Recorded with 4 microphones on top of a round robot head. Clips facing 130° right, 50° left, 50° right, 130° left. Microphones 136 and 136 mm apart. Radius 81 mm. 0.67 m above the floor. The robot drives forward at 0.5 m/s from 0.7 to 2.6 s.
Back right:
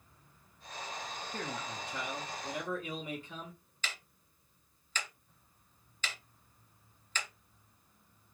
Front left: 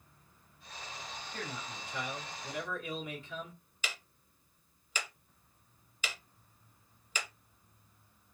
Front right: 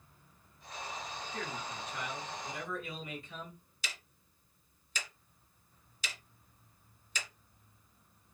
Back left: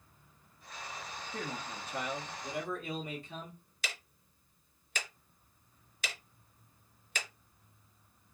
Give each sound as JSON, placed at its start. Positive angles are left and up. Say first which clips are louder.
{"t": 1.3, "sound": "a man speaking", "louder": "back right 3 dB, back left 2 dB", "azimuth_deg": -175, "distance_m": 0.7}
{"t": 3.8, "sound": "ticking", "louder": "front left 1 dB, back left 3 dB", "azimuth_deg": 130, "distance_m": 0.6}